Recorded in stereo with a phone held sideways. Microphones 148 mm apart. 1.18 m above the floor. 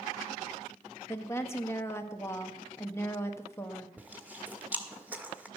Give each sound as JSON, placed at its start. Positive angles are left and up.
{"t": 1.1, "sound": "a woman speaking", "side_deg": 15, "distance_m": 1.2}
{"t": 4.0, "sound": "chewing", "side_deg": -10, "distance_m": 1.2}